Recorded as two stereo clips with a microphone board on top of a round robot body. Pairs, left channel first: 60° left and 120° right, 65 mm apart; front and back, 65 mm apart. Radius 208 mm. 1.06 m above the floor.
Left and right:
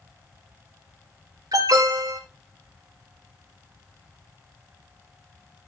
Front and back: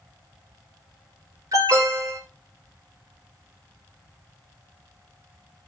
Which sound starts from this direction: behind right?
An alarm, at 1.5 s.